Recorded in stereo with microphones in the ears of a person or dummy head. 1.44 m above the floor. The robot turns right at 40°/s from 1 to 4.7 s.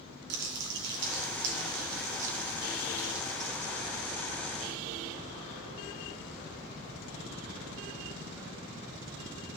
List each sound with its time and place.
0.3 s crumpling: 90° right, 3 m; by 3.9 s 25° left, 3 m